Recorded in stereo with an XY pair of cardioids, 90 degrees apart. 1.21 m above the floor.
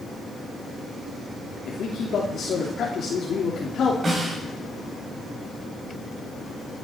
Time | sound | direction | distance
1.6 | a man speaking | 65° left | 3 m
4.0 | a snare drum | 40° right | 8 m